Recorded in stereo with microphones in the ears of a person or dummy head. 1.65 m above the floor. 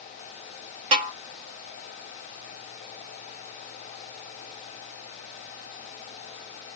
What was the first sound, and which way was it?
A snare drum, 30° right (ahead or behind).